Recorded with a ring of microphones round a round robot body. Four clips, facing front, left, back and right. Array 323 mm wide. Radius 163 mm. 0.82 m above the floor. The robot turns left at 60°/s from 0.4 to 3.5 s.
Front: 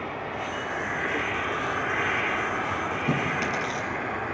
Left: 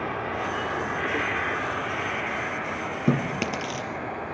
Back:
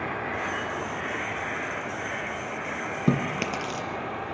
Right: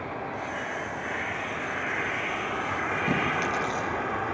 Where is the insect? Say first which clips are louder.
Left 4 dB, back 1 dB; 105° left, 1.6 m; by 4.3 s 80° right, 1.6 m.